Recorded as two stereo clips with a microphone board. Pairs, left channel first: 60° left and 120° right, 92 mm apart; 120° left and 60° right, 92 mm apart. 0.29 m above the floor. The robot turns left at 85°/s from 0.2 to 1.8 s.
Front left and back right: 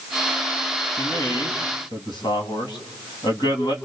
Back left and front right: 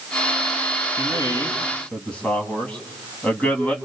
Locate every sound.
1.0 s a man speaking: 115° left, 2.5 m; by 3.8 s 45° left, 2.5 m